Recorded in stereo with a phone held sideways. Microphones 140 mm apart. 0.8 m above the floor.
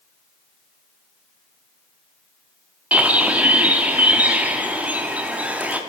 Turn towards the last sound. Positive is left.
turn(degrees=-10)  # may be behind; listen again after turning